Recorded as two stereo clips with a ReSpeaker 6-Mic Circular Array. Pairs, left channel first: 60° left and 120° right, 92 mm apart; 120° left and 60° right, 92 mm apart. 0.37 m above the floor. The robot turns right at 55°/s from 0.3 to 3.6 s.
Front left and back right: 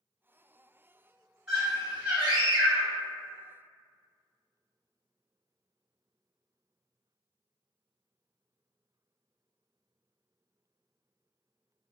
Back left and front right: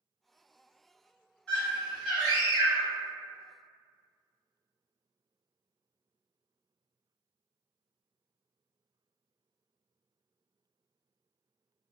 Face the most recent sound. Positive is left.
turn(degrees=-70)